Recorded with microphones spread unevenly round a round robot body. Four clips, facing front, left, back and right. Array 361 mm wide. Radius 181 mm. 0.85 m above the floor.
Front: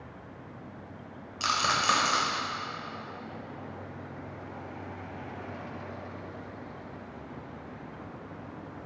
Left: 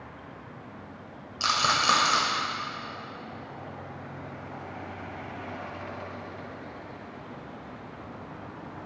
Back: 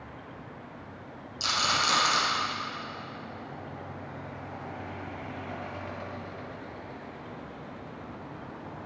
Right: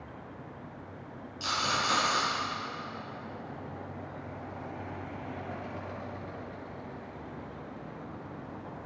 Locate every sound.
1.4 s a rattle: 75° left, 1.9 m